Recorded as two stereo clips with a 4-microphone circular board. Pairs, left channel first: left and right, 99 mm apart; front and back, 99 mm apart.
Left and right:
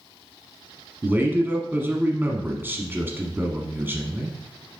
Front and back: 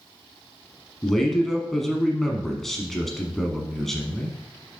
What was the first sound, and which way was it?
A man speaking, 80° right.